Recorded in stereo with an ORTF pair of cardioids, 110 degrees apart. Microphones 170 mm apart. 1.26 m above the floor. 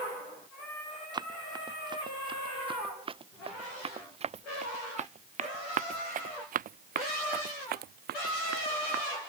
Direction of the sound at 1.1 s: 25° right.